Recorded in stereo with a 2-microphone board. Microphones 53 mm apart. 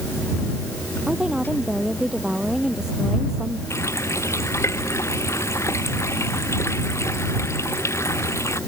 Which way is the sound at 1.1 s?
15° right (ahead or behind).